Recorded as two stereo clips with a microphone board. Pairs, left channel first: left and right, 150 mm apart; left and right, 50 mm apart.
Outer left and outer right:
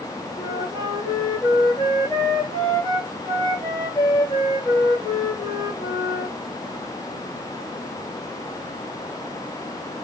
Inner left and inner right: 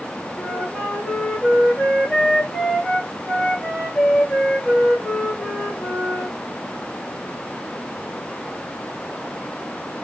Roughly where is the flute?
Left.